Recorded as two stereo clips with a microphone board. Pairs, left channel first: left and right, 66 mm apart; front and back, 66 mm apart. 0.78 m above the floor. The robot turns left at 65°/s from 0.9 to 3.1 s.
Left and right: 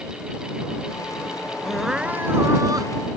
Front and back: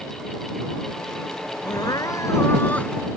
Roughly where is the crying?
Ahead.